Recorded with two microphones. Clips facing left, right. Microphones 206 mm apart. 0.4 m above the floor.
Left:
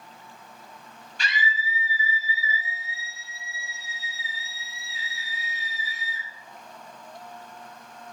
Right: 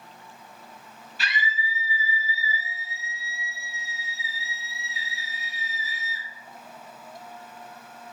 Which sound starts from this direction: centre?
A scream, at 1.2 s.